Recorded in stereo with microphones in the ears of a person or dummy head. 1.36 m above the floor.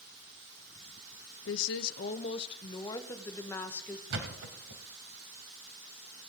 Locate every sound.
1.5 s a woman speaking: 65° left (ahead or behind), 0.6 m; by 4.0 s 10° left (ahead or behind), 1.9 m
4.1 s a thud: 65° right (ahead or behind), 2 m